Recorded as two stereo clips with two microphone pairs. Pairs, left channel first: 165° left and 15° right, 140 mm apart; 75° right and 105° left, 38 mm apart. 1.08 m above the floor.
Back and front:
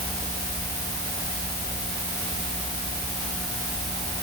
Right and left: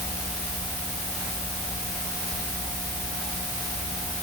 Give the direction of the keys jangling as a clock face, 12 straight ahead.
I don't hear keys jangling.